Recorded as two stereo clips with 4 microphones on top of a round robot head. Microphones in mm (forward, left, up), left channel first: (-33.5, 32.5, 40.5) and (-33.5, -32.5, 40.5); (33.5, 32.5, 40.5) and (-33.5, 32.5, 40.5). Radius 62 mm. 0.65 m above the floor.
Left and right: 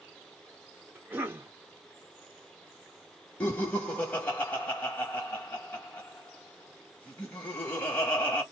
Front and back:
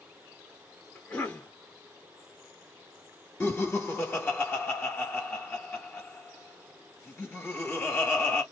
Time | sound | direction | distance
0.9 | a cough | 60° right | 1.3 m
3.4 | laughter | 40° left | 1.2 m